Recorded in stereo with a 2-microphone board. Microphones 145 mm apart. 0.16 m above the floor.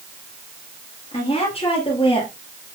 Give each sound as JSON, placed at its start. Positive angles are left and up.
{"t": 1.1, "sound": "a woman speaking", "side_deg": 45, "distance_m": 3.5}